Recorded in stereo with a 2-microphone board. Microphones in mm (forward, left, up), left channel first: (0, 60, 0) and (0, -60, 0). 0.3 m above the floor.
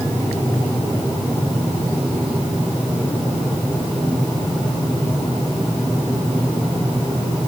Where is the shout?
No shout in this recording.